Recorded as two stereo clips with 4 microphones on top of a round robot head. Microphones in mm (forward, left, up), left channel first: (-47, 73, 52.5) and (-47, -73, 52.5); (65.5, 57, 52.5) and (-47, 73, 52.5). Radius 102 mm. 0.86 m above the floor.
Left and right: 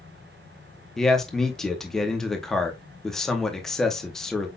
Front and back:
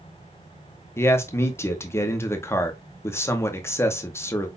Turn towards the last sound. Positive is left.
turn(degrees=5)